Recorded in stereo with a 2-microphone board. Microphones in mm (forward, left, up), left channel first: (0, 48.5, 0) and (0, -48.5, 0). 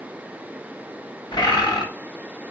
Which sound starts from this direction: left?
A bird, at 1.3 s.